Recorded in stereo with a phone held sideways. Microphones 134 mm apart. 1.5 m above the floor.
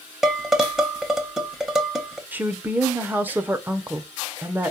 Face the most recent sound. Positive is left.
turn(degrees=-15)  # may be behind; listen again after turning